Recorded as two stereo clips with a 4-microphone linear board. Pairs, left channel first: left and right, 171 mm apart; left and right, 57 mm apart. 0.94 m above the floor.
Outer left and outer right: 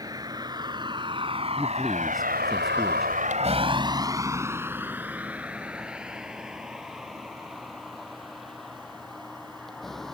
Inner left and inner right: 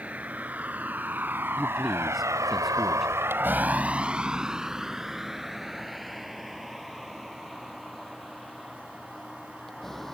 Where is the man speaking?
Centre (ahead or behind).